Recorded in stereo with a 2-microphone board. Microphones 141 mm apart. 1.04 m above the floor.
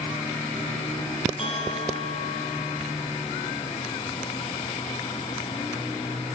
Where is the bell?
40° left (ahead or behind), 5 m.